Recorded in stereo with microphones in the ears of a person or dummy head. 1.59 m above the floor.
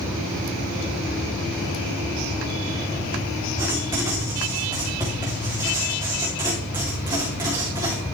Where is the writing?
20° right (ahead or behind), 3 m.